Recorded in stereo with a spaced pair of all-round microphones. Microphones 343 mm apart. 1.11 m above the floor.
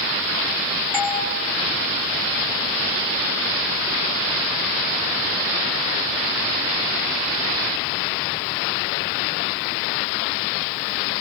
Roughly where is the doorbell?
Centre.